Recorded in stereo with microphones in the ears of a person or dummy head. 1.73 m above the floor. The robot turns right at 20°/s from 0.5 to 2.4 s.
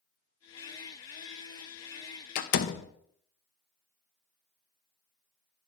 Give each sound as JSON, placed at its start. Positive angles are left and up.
{"t": 2.4, "sound": "a door slam", "side_deg": 50, "distance_m": 0.8}